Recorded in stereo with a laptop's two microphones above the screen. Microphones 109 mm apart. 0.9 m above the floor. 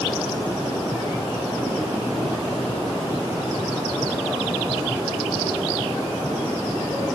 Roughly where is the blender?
I don't hear a blender.